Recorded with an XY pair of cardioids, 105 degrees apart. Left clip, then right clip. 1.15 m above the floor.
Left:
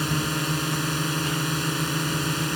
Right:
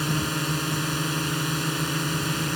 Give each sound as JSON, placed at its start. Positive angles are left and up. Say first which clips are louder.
{"t": 0.0, "sound": "a drone", "louder": "left 1 dB", "azimuth_deg": 5}